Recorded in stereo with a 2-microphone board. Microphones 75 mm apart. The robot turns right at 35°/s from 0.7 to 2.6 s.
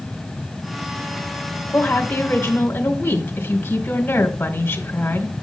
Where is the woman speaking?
30° left (ahead or behind), 1.5 m; by 5.4 s 25° left (ahead or behind), 1.5 m.